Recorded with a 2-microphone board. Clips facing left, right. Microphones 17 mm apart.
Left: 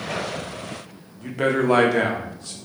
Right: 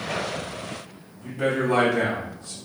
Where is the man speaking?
65° left (ahead or behind), 0.9 m.